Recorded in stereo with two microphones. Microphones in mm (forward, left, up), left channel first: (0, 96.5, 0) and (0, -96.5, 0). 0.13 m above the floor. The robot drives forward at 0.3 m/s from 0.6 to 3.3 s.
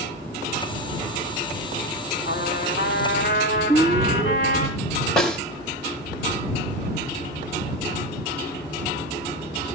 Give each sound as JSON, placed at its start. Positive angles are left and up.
{"t": 2.2, "sound": "a trumpet", "side_deg": 60, "distance_m": 5.0}
{"t": 3.7, "sound": "an alarm", "side_deg": 25, "distance_m": 4.0}
{"t": 5.2, "sound": "a snare drum", "side_deg": 5, "distance_m": 3.5}